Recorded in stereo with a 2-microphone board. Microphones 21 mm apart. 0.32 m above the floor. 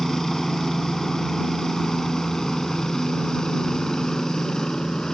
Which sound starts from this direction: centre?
A helicopter, at 0.0 s.